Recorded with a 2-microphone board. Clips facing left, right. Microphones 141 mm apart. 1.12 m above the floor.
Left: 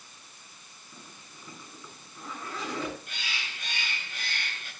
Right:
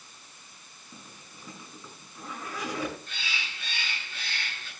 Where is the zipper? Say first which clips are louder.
Right 1 dB; 10° right (ahead or behind), 8 m.